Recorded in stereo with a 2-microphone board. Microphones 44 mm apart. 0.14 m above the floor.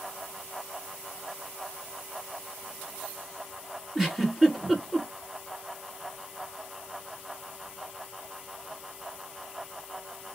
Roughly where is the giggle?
Centre.